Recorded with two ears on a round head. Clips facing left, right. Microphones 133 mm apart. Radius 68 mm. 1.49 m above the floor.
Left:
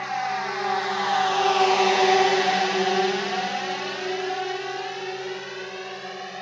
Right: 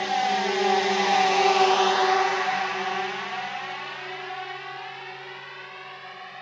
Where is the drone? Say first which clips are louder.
Right 3 dB; 35° right (ahead or behind); by 6.4 s 45° left (ahead or behind).